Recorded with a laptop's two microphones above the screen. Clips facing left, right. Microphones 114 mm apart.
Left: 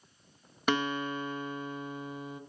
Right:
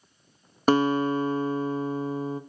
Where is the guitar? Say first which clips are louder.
Right 9 dB; 40° right (ahead or behind), 0.9 m.